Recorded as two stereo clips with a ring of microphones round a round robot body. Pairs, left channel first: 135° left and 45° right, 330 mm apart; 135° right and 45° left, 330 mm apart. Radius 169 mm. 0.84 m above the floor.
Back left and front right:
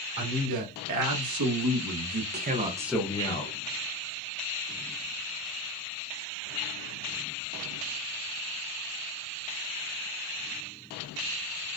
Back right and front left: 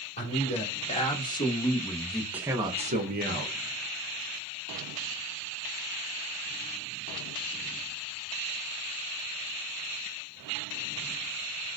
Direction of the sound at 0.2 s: 65° right.